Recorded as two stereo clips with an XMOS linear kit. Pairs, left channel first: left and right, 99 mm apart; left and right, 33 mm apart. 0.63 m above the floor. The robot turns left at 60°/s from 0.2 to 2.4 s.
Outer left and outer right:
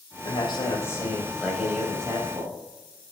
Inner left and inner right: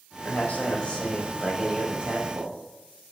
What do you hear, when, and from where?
0.2 s a man speaking: 70° left, 4.5 m; by 2.6 s 60° right, 4.5 m